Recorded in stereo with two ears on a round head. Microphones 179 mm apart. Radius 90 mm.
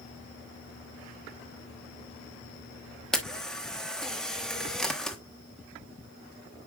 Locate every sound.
3.1 s a camera shutter: 5° left (ahead or behind), 1.1 m